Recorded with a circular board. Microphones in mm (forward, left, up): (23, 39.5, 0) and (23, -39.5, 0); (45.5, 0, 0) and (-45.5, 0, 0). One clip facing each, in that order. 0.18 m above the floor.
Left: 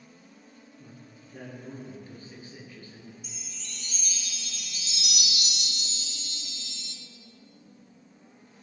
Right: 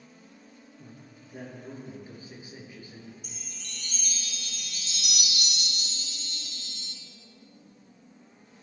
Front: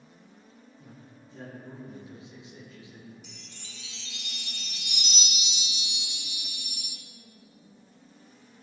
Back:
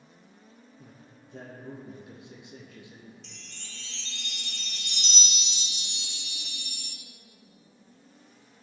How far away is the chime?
About 1.3 m.